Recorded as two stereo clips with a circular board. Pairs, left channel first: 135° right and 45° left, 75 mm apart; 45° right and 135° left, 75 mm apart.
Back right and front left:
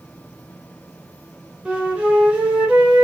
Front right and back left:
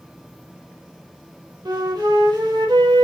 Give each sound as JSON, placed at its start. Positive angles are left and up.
{"t": 1.6, "sound": "a flute", "azimuth_deg": 120, "distance_m": 1.2}